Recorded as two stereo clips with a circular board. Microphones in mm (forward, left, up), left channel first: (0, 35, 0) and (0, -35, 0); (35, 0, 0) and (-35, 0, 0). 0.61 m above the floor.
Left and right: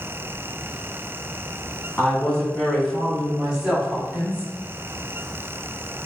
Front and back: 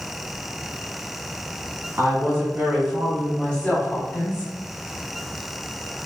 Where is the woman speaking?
160° left, 1.2 m; by 4.5 s 25° right, 1.3 m.